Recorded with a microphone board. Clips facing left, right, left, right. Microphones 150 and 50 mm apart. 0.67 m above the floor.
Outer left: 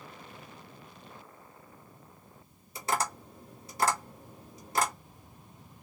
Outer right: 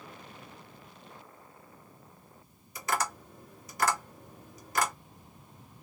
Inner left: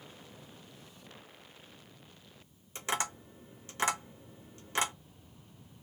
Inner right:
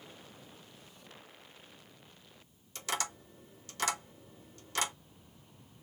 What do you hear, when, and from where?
2.8 s tapping: 30° left (ahead or behind), 1.2 m